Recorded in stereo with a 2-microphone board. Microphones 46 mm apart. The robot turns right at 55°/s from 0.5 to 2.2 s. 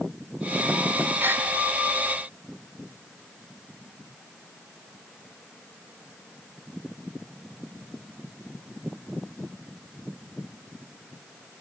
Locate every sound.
1.2 s a gasp: 40° right (ahead or behind), 4 m; by 1.5 s 55° right (ahead or behind), 4 m